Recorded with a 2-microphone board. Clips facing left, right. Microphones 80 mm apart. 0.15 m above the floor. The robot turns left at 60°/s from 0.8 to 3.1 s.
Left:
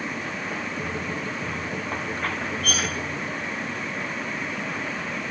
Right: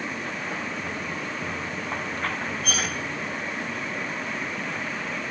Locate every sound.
2.6 s cutlery clinking: 70° left (ahead or behind), 1.7 m; by 2.9 s 65° left (ahead or behind), 1.7 m